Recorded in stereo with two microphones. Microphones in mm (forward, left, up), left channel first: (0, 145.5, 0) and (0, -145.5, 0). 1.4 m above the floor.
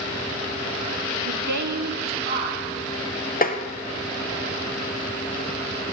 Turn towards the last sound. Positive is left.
turn(degrees=30)  # may be behind; listen again after turning